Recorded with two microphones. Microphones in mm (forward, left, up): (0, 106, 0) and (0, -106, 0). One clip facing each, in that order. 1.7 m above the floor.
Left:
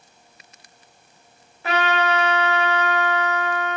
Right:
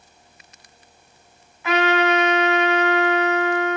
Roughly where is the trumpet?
Left.